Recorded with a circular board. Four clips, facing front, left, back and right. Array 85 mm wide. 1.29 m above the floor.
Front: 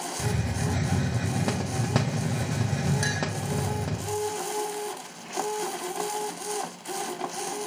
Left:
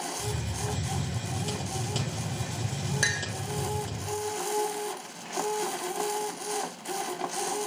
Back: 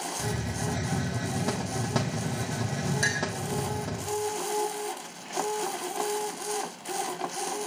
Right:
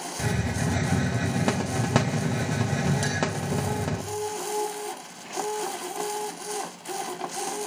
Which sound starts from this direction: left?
A clink, at 3.0 s.